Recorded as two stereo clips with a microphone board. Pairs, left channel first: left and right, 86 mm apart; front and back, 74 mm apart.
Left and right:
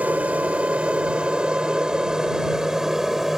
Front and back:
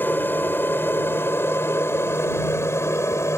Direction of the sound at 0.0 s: 35° right.